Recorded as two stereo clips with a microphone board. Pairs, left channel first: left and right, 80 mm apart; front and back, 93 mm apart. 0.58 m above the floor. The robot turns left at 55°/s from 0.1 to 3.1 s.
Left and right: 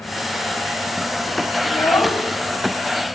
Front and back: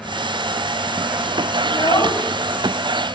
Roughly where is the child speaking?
Ahead left.